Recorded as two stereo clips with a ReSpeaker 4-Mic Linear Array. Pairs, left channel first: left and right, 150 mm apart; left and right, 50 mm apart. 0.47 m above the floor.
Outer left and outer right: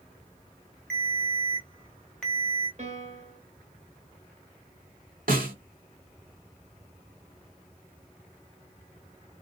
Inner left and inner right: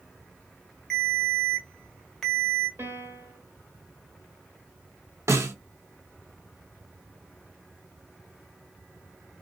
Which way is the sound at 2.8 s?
50° right (ahead or behind).